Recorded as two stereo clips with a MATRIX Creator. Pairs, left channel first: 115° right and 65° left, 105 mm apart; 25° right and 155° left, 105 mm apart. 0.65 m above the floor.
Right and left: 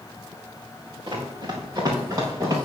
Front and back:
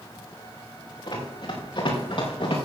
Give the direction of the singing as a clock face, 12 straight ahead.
I don't hear singing.